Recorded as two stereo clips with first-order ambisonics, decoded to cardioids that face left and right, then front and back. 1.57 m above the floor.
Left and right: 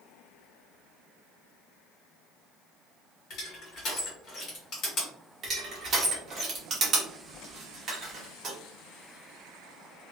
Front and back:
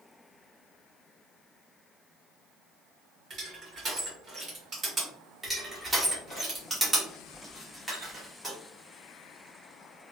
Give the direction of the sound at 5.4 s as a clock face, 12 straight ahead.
4 o'clock.